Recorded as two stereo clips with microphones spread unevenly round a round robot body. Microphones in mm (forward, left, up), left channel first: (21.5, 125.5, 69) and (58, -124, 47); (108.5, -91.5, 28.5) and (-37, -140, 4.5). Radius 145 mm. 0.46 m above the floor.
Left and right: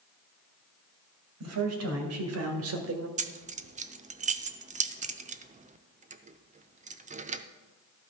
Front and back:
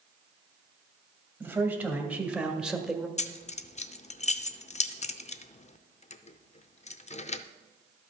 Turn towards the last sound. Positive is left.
turn(degrees=-30)